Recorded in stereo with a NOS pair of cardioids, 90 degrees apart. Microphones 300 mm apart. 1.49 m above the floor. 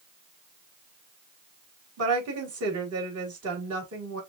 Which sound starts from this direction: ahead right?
A woman speaking, at 2.0 s.